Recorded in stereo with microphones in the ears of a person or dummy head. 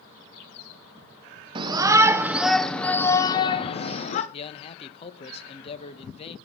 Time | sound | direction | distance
1.6 | a shout | 30° right (ahead or behind) | 1.4 m
4.3 | a man speaking | 40° left (ahead or behind) | 1.3 m